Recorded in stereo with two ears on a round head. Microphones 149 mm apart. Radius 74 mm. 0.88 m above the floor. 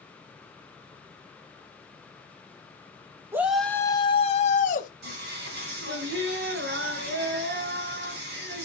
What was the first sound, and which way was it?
A shout, 15° right (ahead or behind).